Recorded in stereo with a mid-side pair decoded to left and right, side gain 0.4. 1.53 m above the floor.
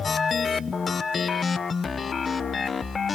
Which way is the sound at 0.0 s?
45° left.